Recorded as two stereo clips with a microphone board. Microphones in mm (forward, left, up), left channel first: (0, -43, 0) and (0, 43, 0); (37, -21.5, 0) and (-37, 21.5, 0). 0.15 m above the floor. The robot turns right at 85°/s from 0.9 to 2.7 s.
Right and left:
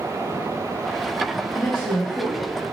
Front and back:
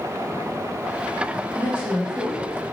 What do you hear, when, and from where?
1.5 s a woman speaking: 175° left, 1.0 m; by 2.4 s 110° right, 1.0 m